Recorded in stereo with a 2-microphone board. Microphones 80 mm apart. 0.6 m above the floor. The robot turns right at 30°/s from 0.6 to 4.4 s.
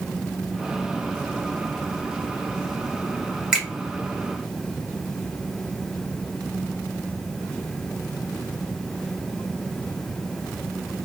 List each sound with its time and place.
3.5 s a finger snap: 10° right (ahead or behind), 1.1 m; by 3.6 s 5° right (ahead or behind), 1.1 m